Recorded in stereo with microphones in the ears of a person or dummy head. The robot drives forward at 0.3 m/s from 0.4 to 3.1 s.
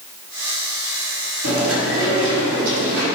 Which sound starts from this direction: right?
Chewing, at 1.4 s.